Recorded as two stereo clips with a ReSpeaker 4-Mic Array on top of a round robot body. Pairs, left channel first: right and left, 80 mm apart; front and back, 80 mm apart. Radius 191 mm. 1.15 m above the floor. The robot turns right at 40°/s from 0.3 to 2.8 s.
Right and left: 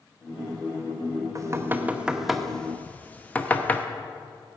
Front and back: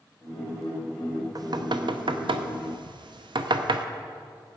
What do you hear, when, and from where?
1.4 s knocking: 140° left, 0.8 m; by 3.9 s 160° right, 0.8 m